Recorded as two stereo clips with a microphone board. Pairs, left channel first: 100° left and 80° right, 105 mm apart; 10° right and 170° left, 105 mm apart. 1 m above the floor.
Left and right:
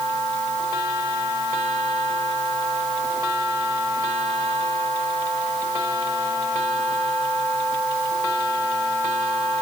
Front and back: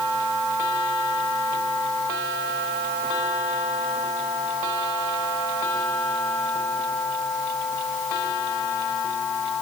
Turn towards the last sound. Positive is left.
No sound to turn to.